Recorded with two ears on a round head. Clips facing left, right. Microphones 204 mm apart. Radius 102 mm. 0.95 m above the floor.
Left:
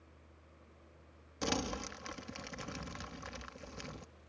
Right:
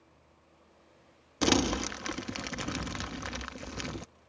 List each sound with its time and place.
1.4 s crumpling: 70° right (ahead or behind)